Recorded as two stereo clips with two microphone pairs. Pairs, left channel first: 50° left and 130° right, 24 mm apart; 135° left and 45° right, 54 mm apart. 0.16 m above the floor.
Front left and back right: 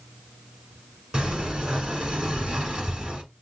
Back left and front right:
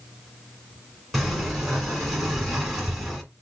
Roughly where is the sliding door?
Behind right.